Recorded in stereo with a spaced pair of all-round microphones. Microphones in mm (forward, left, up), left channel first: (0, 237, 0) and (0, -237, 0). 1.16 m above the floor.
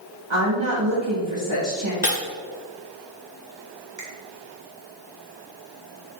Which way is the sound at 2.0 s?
35° left (ahead or behind).